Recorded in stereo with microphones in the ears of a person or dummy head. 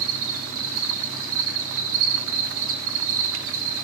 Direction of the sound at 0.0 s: 75° right (ahead or behind).